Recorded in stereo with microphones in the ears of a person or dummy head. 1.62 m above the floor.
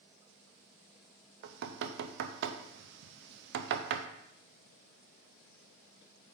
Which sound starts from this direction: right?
Knocking, at 1.4 s.